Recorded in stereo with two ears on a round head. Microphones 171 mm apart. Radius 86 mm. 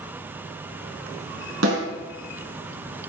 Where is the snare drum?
70° right (ahead or behind), 5 m.